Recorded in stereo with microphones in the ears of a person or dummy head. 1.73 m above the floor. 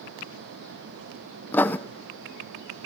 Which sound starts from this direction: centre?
Writing, at 1.5 s.